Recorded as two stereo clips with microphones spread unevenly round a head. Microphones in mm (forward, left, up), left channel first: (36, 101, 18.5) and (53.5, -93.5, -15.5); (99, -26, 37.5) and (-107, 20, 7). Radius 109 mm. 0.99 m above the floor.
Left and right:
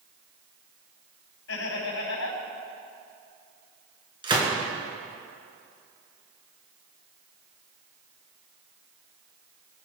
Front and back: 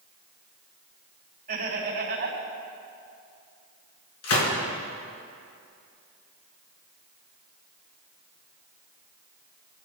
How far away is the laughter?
About 5 m.